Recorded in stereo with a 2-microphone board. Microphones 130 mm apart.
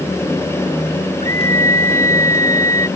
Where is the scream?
75° right (ahead or behind); by 2.9 s 80° right.